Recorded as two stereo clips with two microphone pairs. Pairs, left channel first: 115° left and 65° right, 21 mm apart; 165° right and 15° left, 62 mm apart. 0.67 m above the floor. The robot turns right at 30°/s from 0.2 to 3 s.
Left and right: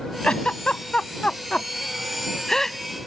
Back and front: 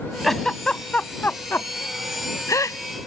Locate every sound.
0.2 s a giggle: 110° left; by 2.8 s 175° right